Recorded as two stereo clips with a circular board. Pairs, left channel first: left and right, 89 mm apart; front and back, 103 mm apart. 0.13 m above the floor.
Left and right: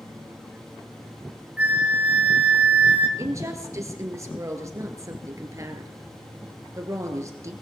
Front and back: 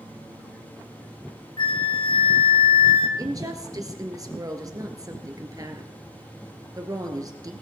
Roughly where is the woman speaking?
Behind right.